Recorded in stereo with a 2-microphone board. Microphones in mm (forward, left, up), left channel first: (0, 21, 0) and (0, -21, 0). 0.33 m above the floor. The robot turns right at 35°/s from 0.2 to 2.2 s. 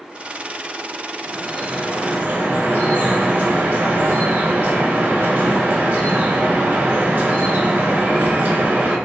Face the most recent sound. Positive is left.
turn(degrees=-65)